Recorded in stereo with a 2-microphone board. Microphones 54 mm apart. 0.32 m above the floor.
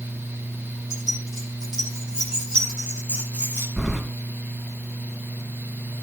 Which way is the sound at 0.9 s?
5° right (ahead or behind).